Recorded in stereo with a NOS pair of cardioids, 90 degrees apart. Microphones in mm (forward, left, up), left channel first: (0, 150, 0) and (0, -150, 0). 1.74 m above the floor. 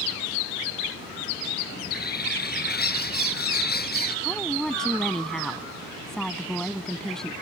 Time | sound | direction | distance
1.8 | a bird | 35° left | ?
4.2 | a woman speaking | straight ahead | ?